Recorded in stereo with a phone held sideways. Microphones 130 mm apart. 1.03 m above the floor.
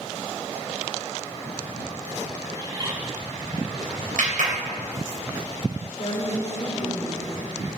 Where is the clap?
80° right, 3.5 m.